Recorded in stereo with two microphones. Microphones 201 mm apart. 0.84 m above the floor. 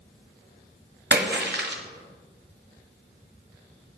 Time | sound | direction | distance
1.1 | a splash | 60° right (ahead or behind) | 1.1 m